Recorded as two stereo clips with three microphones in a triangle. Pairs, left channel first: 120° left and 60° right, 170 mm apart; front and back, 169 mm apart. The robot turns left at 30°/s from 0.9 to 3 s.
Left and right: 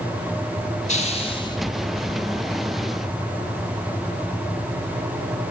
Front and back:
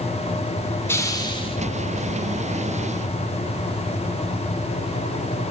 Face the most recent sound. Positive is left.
turn(degrees=15)